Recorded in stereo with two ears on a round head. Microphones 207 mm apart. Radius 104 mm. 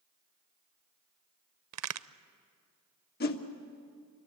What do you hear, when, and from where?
1.7 s a crack: 80° right, 0.6 m
3.2 s a whoosh: 45° left (ahead or behind), 1.4 m